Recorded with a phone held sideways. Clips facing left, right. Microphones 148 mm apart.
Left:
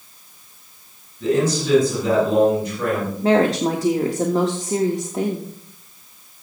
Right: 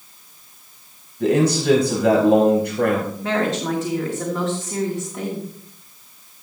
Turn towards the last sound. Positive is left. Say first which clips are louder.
# left 9 dB
turn(degrees=35)  # may be behind; listen again after turning